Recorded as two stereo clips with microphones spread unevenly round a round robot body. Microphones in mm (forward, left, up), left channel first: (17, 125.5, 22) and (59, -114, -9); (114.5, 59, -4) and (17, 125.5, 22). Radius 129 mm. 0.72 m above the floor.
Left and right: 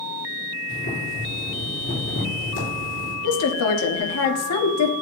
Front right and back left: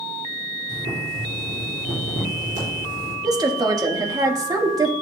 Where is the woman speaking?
85° left, 1.4 m.